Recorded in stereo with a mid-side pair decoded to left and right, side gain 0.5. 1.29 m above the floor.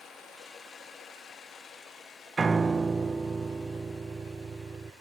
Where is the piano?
30° right, 0.5 m.